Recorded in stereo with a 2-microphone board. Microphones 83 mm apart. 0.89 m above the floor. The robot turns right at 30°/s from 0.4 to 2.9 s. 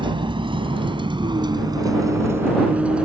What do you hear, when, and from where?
0.0 s a vehicle: 75° right (ahead or behind); by 3.1 s 15° right (ahead or behind)